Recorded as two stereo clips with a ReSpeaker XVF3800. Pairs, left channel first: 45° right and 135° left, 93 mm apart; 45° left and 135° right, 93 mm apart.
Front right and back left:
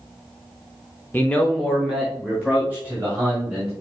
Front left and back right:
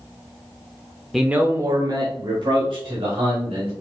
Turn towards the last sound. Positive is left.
turn(degrees=-155)